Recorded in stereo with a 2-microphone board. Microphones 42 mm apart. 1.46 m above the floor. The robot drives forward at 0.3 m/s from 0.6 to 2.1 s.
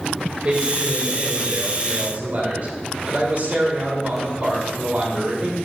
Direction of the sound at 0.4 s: 35° right (ahead or behind).